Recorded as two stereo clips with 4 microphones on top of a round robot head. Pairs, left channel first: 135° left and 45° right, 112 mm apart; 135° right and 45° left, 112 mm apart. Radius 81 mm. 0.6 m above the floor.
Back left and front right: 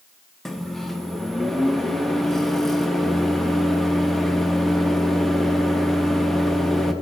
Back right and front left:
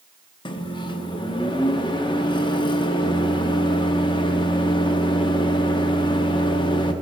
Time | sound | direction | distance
0.5 | a microwave | 140° right | 0.9 m